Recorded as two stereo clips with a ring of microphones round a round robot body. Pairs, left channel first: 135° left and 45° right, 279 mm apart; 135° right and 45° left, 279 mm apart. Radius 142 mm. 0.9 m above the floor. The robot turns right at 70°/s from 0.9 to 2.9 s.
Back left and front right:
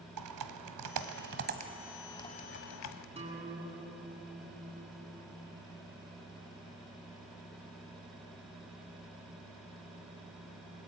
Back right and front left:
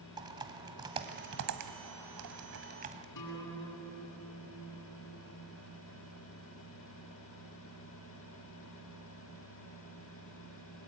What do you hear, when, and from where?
0.2 s typing on a keyboard: 30° right, 1.5 m; by 3.0 s 110° left, 1.5 m
3.1 s a guitar: 115° right, 8.5 m